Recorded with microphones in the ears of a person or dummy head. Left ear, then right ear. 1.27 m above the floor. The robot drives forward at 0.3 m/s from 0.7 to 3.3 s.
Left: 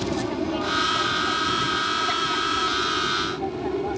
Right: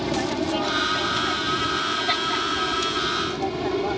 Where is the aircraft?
20° right (ahead or behind); by 4.0 s 35° right (ahead or behind).